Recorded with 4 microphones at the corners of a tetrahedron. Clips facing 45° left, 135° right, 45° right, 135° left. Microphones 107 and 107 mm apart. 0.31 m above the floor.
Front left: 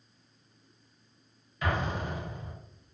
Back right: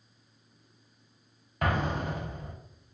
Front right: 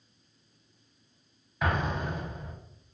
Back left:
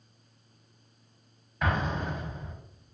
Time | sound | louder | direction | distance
1.6 | an explosion | back right 2 dB, even | 130° right | 0.7 m